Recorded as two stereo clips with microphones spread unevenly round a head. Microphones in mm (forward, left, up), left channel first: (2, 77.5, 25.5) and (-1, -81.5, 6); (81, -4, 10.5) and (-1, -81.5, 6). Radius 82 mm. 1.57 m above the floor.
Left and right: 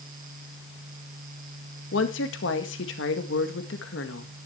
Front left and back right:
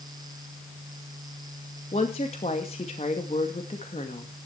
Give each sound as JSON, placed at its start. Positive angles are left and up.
{"t": 1.9, "sound": "a woman speaking", "azimuth_deg": 100, "distance_m": 2.0}